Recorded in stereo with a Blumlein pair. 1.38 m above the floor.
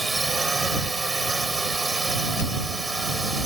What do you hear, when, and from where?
0.0 s a drone: 10° right